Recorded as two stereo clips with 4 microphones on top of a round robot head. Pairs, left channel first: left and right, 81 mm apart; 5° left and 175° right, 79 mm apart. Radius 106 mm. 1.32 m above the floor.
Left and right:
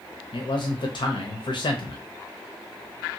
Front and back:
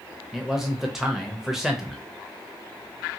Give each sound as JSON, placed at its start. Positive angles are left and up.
{"t": 0.3, "sound": "a man speaking", "azimuth_deg": 100, "distance_m": 0.7}